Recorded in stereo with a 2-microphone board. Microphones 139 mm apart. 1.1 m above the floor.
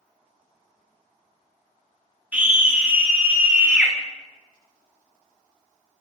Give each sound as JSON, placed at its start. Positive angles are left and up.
{"t": 2.3, "sound": "a scream", "side_deg": -10, "distance_m": 1.9}